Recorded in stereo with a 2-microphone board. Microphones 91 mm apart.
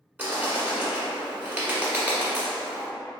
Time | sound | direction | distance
0.2 | a bird | 20° right (ahead or behind) | 1.2 m